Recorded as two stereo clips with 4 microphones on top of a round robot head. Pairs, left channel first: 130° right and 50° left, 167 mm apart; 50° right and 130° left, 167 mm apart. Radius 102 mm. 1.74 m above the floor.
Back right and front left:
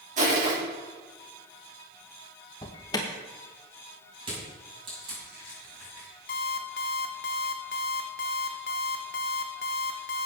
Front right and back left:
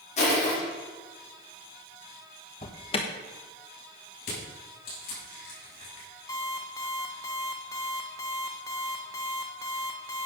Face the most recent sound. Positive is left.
turn(degrees=-115)